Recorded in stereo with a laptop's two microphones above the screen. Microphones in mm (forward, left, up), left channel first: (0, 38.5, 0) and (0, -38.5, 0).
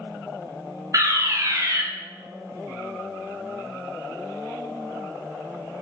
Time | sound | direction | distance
0.9 | a fire alarm | 40° right (ahead or behind) | 1.3 m